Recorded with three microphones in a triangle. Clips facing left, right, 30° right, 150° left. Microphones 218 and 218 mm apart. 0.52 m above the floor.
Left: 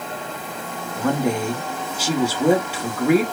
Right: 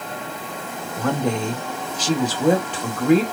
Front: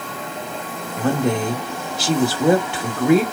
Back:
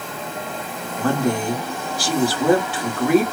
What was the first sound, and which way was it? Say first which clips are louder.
A woman speaking: left 1 dB, front 1 dB; 15° left.